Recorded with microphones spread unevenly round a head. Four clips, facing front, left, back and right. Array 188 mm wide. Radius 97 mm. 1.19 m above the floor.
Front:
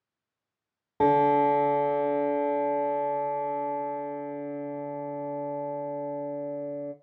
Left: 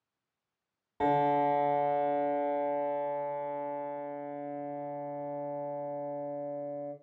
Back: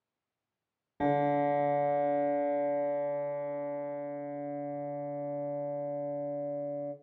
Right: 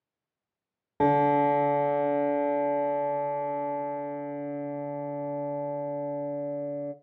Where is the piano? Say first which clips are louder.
Right 5 dB, front 7 dB; 60° right, 1.0 m.